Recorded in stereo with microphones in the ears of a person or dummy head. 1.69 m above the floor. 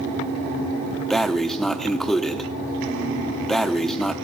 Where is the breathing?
Centre (ahead or behind), 0.9 m.